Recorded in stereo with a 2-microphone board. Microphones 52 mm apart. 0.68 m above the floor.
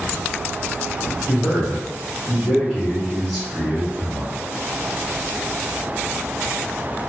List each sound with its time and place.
1.3 s a man speaking: 15° left (ahead or behind), 1.9 m